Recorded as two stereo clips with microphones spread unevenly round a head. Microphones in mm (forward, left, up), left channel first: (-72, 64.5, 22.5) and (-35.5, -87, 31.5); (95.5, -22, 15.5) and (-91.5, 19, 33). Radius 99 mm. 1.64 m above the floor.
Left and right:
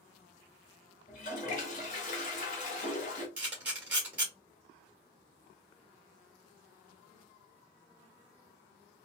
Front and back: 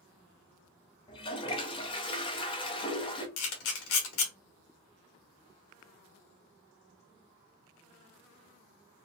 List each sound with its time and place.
1.1 s a toilet flushing: 55° left, 0.7 m
3.4 s a camera shutter: 5° left, 1.3 m